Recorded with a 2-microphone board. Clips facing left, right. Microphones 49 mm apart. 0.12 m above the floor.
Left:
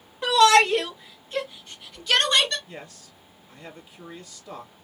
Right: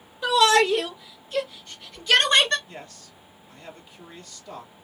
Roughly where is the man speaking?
Centre.